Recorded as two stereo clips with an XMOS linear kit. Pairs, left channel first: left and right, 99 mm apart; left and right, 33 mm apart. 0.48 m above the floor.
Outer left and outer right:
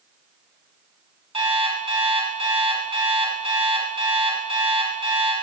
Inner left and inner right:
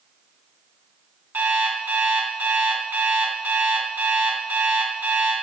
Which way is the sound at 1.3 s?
75° right (ahead or behind).